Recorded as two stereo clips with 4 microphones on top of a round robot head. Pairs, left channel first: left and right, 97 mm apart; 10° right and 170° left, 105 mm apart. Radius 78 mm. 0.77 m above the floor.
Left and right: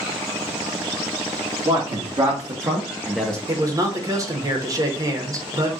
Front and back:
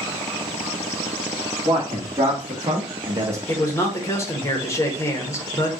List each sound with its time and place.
1.6 s a man speaking: 120° right, 2 m; by 3.4 s 160° left, 0.8 m
3.5 s a man speaking: 55° right, 1.2 m